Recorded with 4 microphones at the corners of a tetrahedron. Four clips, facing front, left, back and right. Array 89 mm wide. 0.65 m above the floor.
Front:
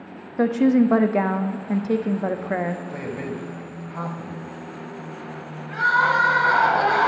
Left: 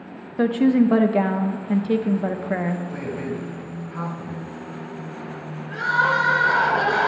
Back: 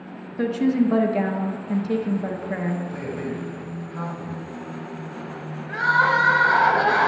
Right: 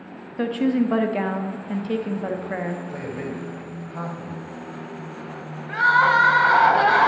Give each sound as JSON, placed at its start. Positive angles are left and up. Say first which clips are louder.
{"t": 0.4, "sound": "a woman speaking", "louder": "left 4 dB, front 3 dB", "azimuth_deg": 20, "distance_m": 0.5}
{"t": 2.9, "sound": "a man speaking", "louder": "left 2 dB, back 1 dB", "azimuth_deg": -45, "distance_m": 3.0}
{"t": 5.7, "sound": "crying", "louder": "right 3 dB, even", "azimuth_deg": -90, "distance_m": 1.6}